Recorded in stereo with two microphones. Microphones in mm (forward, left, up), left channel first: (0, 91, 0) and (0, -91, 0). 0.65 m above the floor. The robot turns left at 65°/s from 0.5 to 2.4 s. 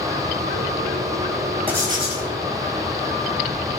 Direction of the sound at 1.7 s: 10° right.